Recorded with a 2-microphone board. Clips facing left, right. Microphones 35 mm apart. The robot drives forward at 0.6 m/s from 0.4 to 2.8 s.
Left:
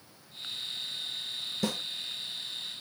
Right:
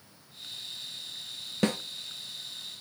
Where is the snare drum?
50° right (ahead or behind), 0.6 m.